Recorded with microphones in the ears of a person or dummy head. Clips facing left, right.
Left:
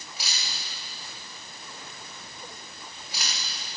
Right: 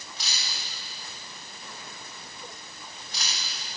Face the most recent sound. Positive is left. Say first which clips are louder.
# left 1 dB
turn(degrees=15)  # may be behind; listen again after turning